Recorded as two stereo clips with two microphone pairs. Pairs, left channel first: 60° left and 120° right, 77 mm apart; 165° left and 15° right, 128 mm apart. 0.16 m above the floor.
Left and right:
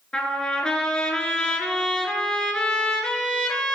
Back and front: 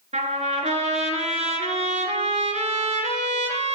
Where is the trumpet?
15° right, 0.9 m.